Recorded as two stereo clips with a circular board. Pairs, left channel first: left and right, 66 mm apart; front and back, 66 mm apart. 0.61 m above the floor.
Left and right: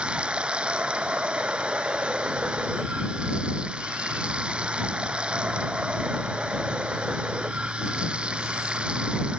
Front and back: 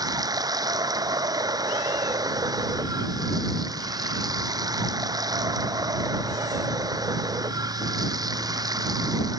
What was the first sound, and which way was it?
Running water, 165° right.